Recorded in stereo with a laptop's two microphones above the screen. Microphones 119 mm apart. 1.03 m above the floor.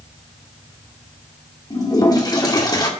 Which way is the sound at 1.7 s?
35° left (ahead or behind).